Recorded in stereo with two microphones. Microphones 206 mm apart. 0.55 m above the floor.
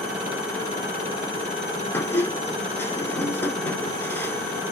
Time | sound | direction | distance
1.9 | a squeak | 10° left (ahead or behind) | 1.0 m